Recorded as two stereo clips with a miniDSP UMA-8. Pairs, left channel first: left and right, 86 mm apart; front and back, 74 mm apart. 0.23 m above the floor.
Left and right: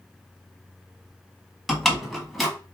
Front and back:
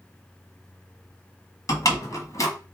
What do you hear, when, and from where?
1.7 s a door slam: 5° left, 1.5 m